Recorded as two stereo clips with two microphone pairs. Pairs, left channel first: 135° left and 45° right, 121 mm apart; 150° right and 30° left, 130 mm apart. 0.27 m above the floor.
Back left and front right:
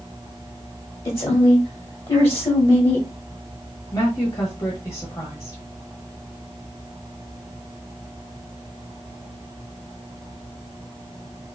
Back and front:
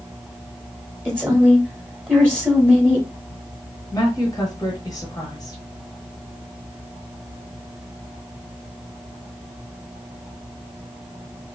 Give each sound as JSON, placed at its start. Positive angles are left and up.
{"t": 1.1, "sound": "a woman speaking", "azimuth_deg": 95, "distance_m": 1.3}
{"t": 3.9, "sound": "a woman speaking", "azimuth_deg": 175, "distance_m": 1.1}